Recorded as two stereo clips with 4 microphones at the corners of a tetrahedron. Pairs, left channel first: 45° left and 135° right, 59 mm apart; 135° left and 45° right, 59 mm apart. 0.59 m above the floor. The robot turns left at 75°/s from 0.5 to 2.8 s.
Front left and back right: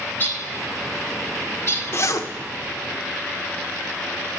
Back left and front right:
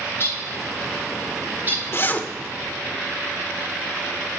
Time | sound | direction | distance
0.1 | a bird | 95° left | 2 m
1.9 | a zipper | 90° left | 0.7 m